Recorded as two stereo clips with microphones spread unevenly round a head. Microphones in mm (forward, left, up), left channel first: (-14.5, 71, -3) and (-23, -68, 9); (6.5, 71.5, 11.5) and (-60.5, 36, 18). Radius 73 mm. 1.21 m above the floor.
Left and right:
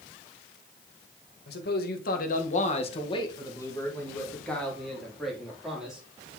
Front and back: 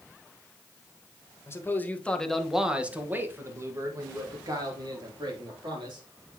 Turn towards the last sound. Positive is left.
turn(degrees=180)